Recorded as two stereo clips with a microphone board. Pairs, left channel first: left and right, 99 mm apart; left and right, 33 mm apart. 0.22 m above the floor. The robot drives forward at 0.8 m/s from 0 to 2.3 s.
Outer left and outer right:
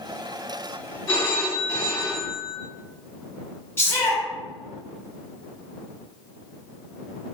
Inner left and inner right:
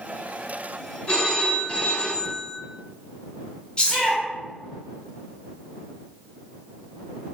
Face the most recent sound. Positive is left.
turn(degrees=25)  # may be behind; listen again after turning